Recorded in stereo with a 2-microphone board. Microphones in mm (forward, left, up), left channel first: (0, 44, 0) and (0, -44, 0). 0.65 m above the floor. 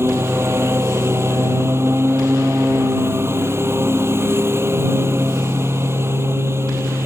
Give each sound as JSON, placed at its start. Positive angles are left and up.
{"t": 0.0, "sound": "a lawn mower", "side_deg": -30}